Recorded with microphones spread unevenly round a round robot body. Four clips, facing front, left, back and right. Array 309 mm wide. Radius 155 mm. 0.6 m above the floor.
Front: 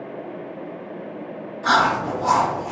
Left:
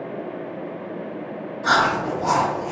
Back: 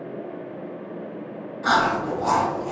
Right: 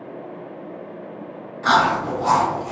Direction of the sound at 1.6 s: 115° right.